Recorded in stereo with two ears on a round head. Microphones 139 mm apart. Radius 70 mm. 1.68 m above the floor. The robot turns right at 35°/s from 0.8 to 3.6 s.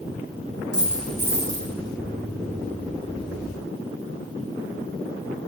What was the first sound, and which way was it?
A dropped coin, 175° right.